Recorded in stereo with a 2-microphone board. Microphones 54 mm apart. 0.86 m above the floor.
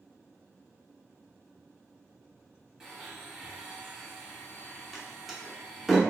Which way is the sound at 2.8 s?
10° right (ahead or behind).